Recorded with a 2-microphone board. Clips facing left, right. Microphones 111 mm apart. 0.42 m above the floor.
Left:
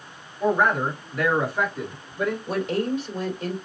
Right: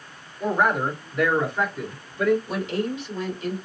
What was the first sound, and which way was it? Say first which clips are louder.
A man speaking: left 1 dB; 10° right (ahead or behind).